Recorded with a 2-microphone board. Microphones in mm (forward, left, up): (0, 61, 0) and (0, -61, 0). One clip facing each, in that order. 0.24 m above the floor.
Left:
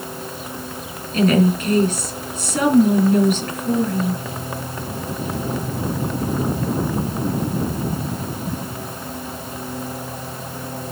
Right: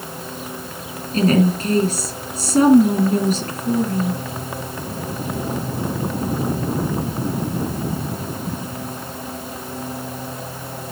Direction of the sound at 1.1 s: 35° right (ahead or behind).